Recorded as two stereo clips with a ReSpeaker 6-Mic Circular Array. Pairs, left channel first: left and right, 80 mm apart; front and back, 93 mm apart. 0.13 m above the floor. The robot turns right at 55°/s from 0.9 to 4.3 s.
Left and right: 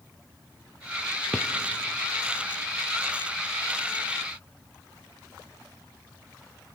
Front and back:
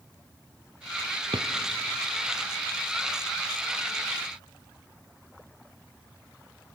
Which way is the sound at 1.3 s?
170° left.